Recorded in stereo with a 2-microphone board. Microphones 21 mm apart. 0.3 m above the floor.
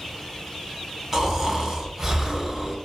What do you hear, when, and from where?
1.1 s snoring: 20° right (ahead or behind), 0.7 m